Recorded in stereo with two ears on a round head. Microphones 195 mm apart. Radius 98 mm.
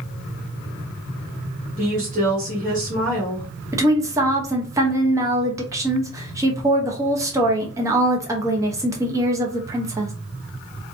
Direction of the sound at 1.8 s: 35° right (ahead or behind).